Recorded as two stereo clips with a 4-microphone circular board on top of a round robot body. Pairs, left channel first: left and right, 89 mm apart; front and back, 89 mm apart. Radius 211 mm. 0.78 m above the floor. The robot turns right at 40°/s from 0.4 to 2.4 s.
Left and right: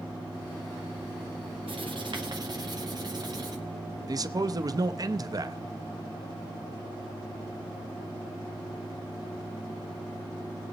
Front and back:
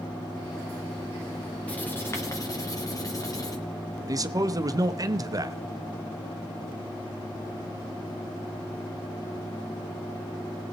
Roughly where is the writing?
Right.